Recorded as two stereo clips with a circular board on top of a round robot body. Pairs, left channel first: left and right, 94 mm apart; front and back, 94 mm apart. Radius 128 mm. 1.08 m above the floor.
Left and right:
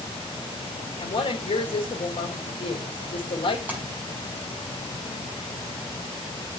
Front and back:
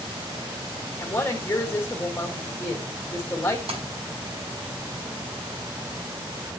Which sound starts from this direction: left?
A woman speaking, at 1.0 s.